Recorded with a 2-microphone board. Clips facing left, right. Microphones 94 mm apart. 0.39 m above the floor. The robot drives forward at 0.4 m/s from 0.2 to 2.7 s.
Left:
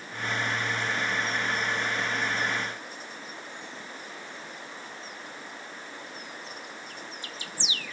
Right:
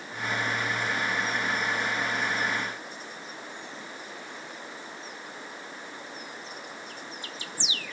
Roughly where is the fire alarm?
No fire alarm in this recording.